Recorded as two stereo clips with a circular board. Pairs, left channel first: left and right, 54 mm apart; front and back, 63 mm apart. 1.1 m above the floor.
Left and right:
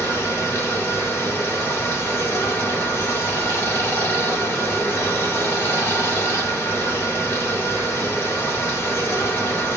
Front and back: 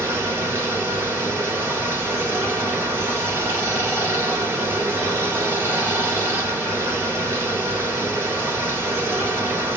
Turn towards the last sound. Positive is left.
turn(degrees=125)